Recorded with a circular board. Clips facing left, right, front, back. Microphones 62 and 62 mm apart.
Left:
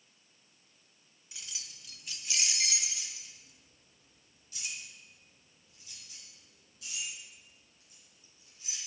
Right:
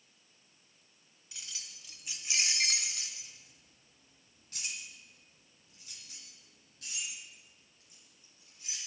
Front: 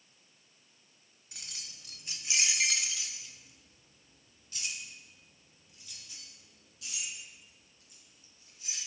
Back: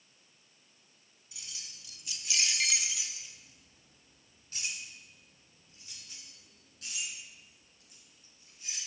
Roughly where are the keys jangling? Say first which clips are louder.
Even, front 1 dB; ahead.